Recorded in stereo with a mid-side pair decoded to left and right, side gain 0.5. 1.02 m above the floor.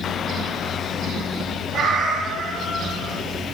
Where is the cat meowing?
60° right, 8 m.